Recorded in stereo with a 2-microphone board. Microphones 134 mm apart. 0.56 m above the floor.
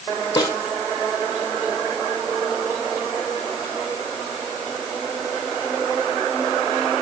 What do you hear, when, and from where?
0.4 s a snare drum: 30° left (ahead or behind), 5.5 m